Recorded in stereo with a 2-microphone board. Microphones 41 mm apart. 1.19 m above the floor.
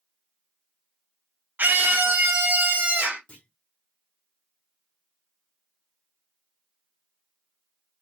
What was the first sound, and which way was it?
A scream, 50° right (ahead or behind).